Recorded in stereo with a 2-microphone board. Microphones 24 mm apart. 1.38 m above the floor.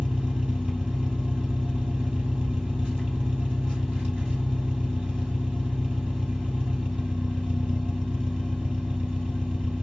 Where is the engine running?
60° right (ahead or behind), 1.7 m.